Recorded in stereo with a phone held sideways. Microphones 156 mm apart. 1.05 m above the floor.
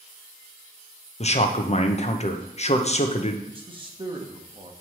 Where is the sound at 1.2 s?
45° left (ahead or behind), 0.6 m.